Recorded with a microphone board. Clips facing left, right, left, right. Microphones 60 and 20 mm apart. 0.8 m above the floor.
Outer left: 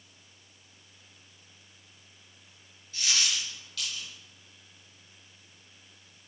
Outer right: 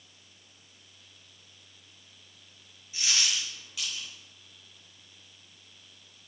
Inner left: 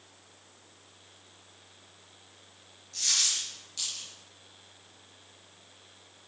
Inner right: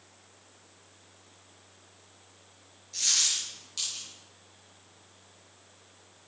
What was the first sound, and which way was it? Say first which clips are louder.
A dropped coin: even, even; 15° right (ahead or behind).